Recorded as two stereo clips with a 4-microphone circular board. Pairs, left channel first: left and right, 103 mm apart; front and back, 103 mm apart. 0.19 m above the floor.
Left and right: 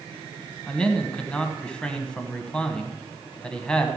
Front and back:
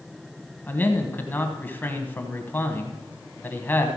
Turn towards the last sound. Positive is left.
turn(degrees=25)